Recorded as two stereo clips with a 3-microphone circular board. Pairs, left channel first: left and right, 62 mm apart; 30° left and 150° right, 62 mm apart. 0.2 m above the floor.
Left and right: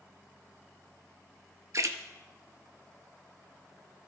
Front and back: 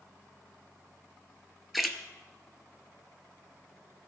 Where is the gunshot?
I don't hear a gunshot.